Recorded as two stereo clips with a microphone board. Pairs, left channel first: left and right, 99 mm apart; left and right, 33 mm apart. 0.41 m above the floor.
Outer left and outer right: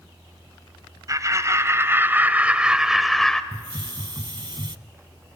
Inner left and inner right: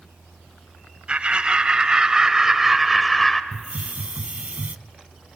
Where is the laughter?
35° right (ahead or behind), 2.0 m; by 3.4 s 5° left (ahead or behind), 1.5 m.